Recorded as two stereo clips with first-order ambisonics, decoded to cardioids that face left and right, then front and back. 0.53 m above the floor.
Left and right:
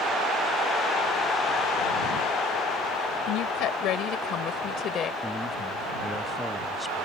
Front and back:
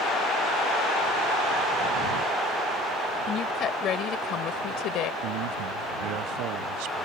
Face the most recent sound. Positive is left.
turn(degrees=175)